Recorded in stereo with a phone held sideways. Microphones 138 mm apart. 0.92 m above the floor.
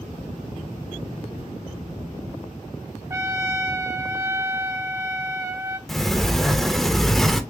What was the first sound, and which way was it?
A trumpet, 20° right (ahead or behind).